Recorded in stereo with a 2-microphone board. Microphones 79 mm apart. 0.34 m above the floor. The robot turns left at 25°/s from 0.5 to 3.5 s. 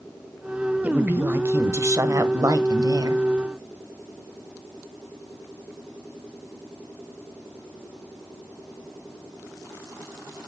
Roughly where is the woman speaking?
Ahead right.